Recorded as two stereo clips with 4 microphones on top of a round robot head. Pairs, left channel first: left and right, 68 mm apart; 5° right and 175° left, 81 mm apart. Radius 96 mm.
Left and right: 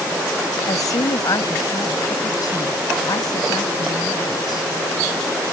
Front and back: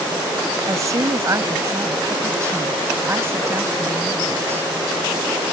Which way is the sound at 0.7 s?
125° left.